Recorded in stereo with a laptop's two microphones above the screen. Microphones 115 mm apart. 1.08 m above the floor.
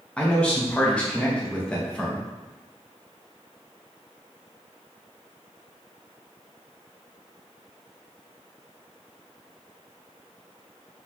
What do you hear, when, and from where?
0.2 s a man speaking: 10° left (ahead or behind), 0.7 m